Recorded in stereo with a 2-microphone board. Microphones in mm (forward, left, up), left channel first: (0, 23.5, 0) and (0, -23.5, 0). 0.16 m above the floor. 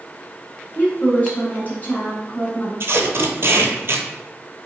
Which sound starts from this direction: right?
Tape being pulled, at 2.8 s.